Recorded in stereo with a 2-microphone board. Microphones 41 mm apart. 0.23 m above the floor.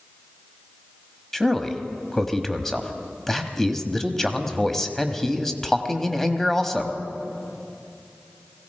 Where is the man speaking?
10° left (ahead or behind), 1.0 m.